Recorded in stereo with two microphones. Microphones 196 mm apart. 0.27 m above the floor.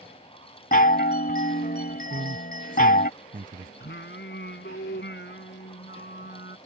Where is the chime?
50° left (ahead or behind).